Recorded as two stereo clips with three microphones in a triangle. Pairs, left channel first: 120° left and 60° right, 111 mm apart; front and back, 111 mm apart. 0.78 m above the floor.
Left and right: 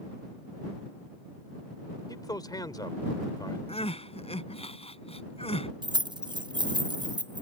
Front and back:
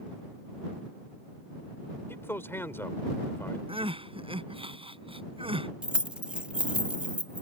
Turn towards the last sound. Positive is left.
turn(degrees=-100)